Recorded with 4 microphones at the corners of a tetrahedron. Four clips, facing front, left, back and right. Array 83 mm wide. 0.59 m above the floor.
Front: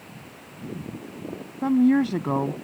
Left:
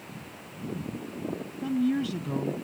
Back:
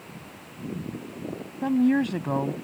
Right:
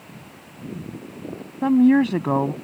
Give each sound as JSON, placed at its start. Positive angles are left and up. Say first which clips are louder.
{"t": 1.6, "sound": "a woman speaking", "louder": "right 12 dB, front 3 dB", "azimuth_deg": -75}